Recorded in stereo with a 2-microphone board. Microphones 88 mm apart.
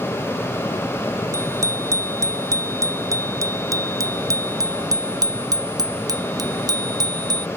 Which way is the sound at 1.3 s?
35° right (ahead or behind).